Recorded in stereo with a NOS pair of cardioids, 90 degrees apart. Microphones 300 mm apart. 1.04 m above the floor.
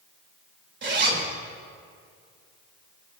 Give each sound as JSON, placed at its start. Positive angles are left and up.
{"t": 0.8, "sound": "a zipper", "azimuth_deg": -35, "distance_m": 2.5}